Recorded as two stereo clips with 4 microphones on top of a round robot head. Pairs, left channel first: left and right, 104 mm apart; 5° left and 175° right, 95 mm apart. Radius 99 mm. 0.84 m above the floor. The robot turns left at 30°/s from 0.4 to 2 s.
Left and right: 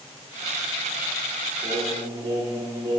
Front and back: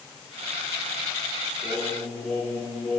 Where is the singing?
65° right, 3.5 m; by 3.0 s 75° right, 3.5 m.